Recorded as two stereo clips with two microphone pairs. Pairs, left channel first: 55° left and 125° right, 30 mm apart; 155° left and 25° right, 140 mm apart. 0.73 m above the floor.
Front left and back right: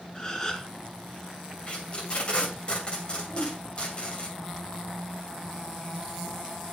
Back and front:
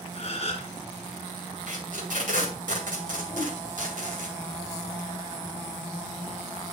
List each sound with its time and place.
0.1 s a gasp: 115° left, 1.6 m
1.7 s tape being pulled: straight ahead, 2 m
3.3 s a whoosh: 25° left, 5.5 m